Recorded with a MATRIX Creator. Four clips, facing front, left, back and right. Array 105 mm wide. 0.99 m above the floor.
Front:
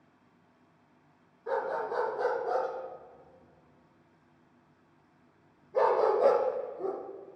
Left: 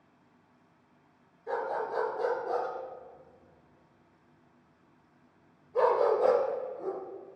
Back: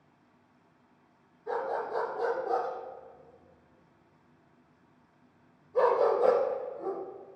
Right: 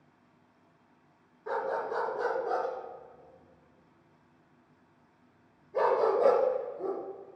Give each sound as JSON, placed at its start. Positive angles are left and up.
{"t": 1.5, "sound": "a dog barking", "azimuth_deg": -60, "distance_m": 3.0}